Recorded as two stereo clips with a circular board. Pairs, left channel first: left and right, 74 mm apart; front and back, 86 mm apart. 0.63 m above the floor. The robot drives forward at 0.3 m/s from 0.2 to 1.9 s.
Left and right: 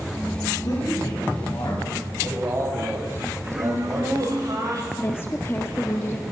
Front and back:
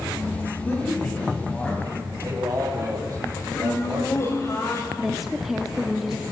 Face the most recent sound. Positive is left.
turn(degrees=95)